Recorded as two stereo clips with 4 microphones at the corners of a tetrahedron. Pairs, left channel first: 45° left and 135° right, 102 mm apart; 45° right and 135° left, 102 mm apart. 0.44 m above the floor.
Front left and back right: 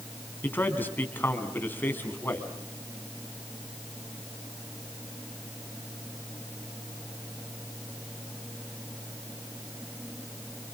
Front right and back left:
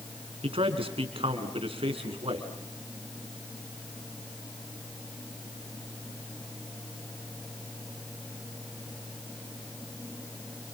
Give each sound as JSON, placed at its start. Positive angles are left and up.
{"t": 0.4, "sound": "a man speaking", "azimuth_deg": 115, "distance_m": 3.5}